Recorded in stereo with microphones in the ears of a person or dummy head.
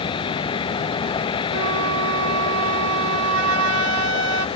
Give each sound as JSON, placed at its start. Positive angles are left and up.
{"t": 0.0, "sound": "a vehicle", "side_deg": 25}
{"t": 1.5, "sound": "a flute", "side_deg": -90}